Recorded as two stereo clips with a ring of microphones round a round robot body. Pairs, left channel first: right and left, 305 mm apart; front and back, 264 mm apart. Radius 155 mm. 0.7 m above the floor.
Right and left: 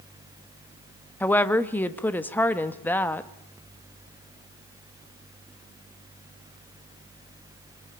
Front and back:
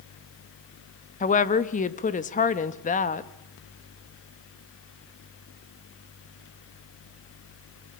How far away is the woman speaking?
About 1.1 m.